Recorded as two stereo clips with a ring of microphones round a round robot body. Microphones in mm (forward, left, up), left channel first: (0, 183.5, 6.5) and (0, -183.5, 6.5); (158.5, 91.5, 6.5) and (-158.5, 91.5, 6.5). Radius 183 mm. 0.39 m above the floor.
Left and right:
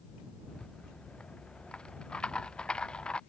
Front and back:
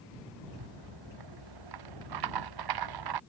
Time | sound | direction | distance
0.5 | a rattle | 175° left | ?